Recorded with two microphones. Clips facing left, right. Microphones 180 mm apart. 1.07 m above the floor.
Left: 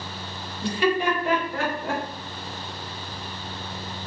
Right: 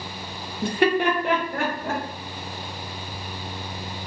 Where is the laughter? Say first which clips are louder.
Right 2 dB; 50° right (ahead or behind), 0.5 m.